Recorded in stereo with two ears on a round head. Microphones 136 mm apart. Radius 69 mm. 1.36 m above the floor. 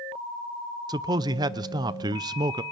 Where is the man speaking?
25° right (ahead or behind), 0.6 m.